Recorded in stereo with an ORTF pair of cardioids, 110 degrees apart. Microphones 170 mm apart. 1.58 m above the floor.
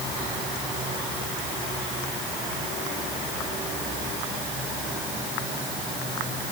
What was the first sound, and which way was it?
Only background noise.